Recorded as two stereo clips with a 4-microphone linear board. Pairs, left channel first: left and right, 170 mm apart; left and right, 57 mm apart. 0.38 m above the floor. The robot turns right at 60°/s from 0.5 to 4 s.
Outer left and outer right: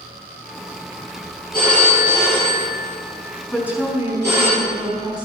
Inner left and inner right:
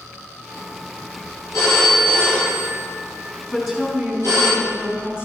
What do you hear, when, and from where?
1.5 s a phone ringing: 120° left, 5 m; by 4.5 s 90° right, 5 m
3.5 s a woman speaking: straight behind, 4.5 m; by 5.2 s 150° right, 4.5 m